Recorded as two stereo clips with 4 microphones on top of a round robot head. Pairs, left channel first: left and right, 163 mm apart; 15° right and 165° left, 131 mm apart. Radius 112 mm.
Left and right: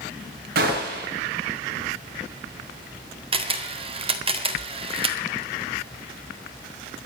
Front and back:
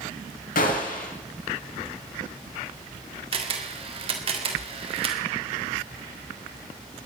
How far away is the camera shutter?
About 2 m.